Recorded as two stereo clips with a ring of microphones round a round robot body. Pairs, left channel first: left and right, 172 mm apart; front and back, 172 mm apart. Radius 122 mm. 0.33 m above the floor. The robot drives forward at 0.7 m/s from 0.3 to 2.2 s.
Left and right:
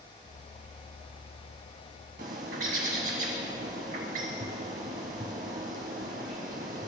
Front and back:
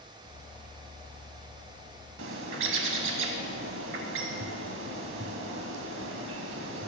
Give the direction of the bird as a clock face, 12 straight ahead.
5 o'clock.